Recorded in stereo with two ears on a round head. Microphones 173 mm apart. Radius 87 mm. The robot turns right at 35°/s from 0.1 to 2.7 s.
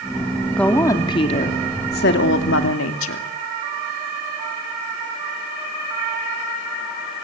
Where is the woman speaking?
5° left, 2.5 m; by 3.3 s 80° left, 2.5 m.